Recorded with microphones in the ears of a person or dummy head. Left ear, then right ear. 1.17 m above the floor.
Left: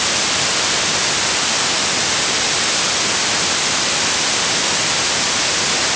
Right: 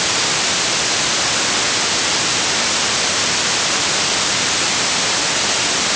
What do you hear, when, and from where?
Only background noise.